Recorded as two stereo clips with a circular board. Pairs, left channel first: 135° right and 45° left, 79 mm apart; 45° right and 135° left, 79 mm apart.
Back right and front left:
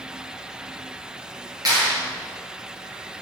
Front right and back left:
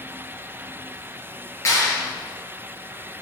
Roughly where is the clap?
Ahead.